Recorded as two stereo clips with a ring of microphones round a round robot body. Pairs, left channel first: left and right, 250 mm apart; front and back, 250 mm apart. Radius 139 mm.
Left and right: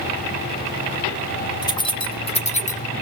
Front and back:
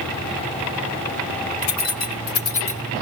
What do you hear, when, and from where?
1.6 s keys jangling: 15° left, 1.5 m; by 3.0 s 40° left, 1.0 m